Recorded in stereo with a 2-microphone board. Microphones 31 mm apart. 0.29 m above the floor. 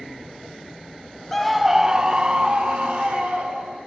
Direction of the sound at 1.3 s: 10° left (ahead or behind).